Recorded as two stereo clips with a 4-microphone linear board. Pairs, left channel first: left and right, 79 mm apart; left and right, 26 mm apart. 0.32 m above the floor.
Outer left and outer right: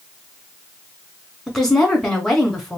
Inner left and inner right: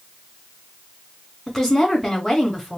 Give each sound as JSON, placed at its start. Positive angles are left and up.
{"t": 1.5, "sound": "a woman speaking", "side_deg": 0, "distance_m": 1.3}